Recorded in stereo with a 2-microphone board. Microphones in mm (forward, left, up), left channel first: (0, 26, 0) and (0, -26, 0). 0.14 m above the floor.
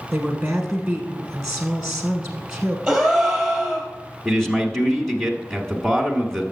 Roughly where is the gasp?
Centre.